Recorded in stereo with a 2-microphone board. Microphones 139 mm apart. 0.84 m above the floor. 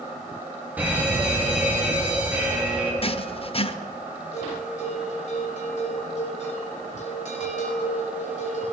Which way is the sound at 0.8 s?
10° right (ahead or behind).